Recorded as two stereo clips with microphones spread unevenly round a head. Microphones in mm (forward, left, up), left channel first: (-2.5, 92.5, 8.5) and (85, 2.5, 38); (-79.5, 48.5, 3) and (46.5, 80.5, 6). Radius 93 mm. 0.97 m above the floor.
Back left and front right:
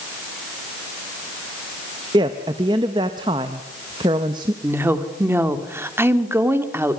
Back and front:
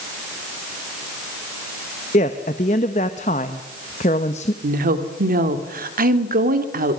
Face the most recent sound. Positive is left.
turn(degrees=30)